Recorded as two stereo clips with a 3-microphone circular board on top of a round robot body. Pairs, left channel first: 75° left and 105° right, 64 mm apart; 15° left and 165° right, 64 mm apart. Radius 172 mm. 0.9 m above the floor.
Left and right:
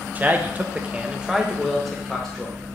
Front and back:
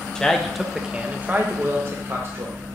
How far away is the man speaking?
About 0.8 m.